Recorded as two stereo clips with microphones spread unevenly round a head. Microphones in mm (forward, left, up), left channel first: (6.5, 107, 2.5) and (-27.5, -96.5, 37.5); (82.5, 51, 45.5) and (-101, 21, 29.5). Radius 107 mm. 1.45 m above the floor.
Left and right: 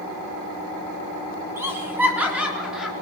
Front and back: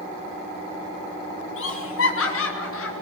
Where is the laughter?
20° right, 4.5 m; by 2.9 s 10° right, 4.5 m.